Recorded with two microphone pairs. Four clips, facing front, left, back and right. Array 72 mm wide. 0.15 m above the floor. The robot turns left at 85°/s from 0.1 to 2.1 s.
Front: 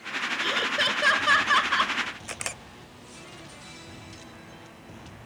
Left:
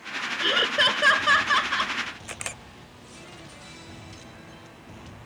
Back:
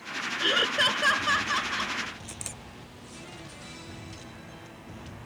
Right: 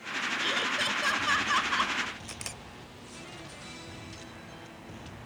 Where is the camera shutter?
35° left.